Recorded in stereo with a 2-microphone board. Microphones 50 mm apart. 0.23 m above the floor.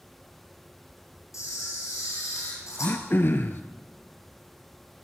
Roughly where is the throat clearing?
Left.